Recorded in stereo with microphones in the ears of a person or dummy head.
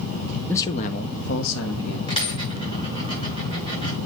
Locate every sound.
0.5 s a man speaking: 10° left (ahead or behind), 0.6 m; by 2.0 s 80° left, 1.6 m
2.1 s a dropped coin: 25° left (ahead or behind), 6 m